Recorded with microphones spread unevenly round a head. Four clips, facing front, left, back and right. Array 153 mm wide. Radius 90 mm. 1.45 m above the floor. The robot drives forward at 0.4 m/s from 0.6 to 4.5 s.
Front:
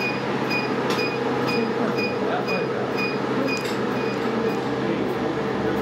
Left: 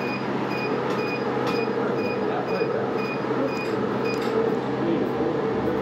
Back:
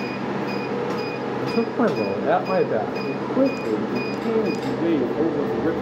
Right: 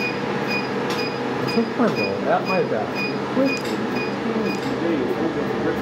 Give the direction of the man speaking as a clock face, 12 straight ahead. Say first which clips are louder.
Right 7 dB, back 1 dB; 4 o'clock.